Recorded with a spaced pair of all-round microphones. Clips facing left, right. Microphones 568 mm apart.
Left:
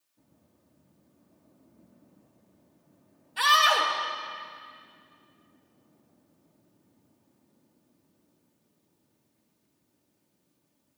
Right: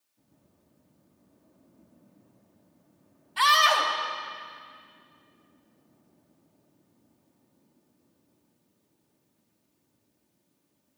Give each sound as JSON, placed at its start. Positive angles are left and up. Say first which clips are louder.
{"t": 3.4, "sound": "a scream", "louder": "right 1 dB", "side_deg": -25, "distance_m": 1.1}